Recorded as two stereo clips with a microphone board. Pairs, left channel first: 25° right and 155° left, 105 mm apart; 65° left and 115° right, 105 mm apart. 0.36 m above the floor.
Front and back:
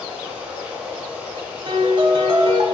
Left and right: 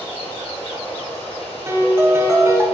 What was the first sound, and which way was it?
Running water, 85° left.